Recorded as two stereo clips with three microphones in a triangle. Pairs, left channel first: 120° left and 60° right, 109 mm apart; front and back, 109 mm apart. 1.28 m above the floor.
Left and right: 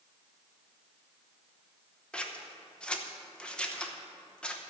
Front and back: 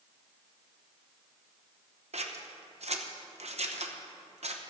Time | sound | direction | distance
2.1 | scissors | 160° right | 0.9 m